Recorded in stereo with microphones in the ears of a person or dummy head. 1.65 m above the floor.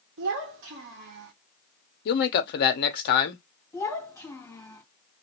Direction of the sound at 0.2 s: 60° right (ahead or behind).